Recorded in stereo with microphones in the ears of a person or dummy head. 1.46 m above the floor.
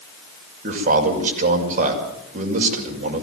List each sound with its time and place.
0.6 s a man speaking: 40° right (ahead or behind), 6 m